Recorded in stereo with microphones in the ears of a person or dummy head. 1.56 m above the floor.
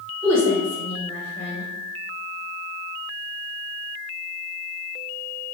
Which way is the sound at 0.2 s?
20° left (ahead or behind).